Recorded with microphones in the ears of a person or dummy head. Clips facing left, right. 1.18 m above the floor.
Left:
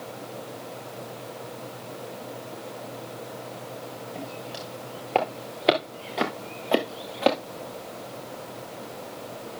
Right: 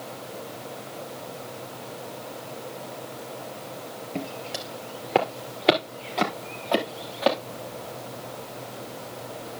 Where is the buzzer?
I don't hear a buzzer.